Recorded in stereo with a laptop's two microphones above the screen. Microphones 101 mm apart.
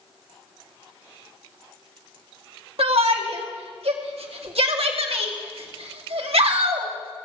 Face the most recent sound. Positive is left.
turn(degrees=-75)  # may be behind; listen again after turning